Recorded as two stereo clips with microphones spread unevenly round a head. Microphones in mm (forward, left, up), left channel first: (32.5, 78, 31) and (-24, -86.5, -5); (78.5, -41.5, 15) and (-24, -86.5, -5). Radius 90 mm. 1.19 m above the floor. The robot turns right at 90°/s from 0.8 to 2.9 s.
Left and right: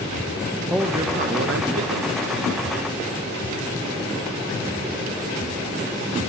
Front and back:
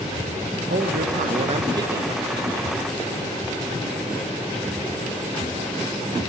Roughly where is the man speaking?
Behind.